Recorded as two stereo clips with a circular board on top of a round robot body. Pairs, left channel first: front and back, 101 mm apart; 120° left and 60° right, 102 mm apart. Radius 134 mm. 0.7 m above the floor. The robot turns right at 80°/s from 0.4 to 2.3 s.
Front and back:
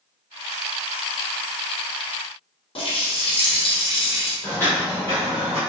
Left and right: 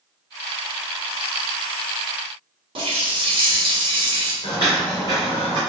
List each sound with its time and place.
2.8 s a running tap: 30° right, 0.9 m
4.4 s footsteps: 75° left, 1.3 m; by 5.6 s 50° right, 0.6 m